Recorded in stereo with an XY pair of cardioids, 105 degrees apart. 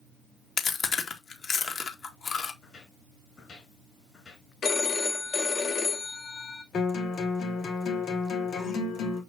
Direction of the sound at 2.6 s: 50° left.